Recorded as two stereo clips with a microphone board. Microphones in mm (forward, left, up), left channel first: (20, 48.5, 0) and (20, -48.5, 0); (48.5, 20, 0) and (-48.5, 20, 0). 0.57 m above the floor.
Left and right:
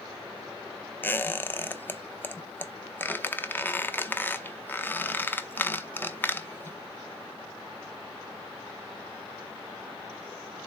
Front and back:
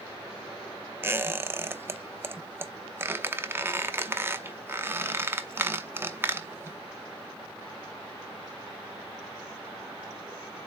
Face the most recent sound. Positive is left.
turn(degrees=135)